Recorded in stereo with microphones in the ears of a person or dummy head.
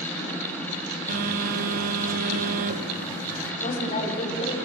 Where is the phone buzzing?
50° right (ahead or behind), 0.9 m.